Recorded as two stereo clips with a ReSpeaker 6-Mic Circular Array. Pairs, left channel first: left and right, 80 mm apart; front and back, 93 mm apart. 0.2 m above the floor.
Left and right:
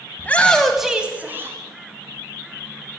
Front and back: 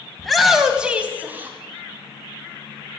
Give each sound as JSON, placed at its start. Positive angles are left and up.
{"t": 0.2, "sound": "a shout", "azimuth_deg": 80, "distance_m": 1.5}